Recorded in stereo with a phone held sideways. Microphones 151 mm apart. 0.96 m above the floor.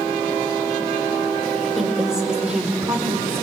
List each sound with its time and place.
1.6 s a woman speaking: centre (ahead or behind), 4 m; by 3.4 s 15° right (ahead or behind), 3.5 m